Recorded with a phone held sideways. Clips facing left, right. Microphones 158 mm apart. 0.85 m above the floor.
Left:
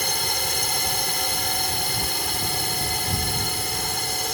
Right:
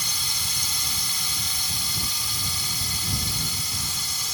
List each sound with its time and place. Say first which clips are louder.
0.0 s a drone: left 10 dB; 60° left (ahead or behind)